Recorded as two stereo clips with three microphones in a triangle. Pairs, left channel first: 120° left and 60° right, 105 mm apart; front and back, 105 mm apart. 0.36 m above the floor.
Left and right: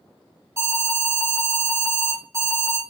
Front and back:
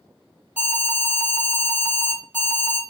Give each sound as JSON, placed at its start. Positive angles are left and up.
{"t": 0.6, "sound": "an alarm", "azimuth_deg": -110, "distance_m": 1.9}